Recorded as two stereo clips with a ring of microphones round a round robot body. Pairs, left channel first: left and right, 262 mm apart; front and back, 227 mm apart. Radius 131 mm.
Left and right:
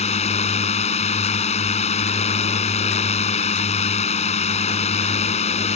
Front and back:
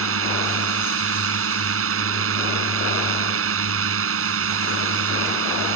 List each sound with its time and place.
0.0 s a drone: 155° left